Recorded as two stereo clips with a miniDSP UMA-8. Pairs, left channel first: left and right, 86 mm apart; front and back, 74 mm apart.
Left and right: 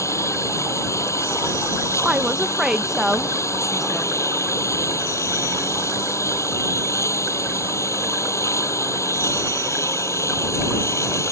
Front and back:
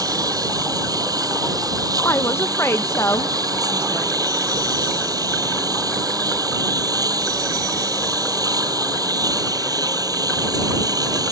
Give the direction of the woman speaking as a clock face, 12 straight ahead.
12 o'clock.